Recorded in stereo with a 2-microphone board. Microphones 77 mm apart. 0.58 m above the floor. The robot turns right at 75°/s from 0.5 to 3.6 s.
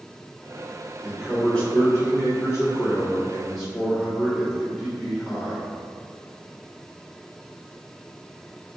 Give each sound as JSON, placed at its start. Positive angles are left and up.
{"t": 1.0, "sound": "a man speaking", "azimuth_deg": -15, "distance_m": 1.7}